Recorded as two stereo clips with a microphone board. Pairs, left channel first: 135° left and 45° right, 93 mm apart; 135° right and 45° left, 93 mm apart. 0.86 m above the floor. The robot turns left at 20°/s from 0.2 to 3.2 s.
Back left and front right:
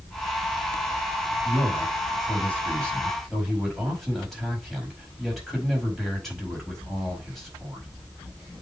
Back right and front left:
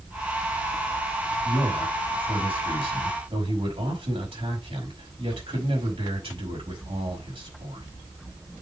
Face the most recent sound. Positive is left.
turn(degrees=45)